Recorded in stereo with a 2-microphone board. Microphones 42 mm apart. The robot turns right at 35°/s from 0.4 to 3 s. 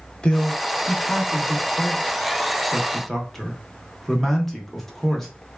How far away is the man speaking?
About 0.8 m.